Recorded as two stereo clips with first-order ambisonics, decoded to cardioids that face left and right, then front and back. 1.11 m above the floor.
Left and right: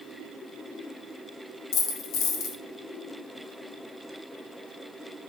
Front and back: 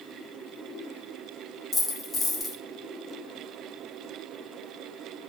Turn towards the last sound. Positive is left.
turn(degrees=75)